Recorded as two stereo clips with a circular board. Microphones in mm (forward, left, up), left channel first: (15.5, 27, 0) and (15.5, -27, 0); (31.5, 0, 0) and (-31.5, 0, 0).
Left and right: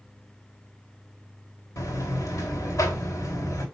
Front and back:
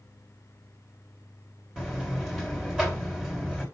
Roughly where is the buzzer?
Left.